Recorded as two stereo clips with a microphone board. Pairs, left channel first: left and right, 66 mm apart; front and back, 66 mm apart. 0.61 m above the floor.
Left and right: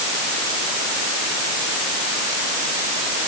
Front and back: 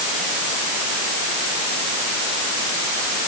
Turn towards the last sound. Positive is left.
No sound to turn to.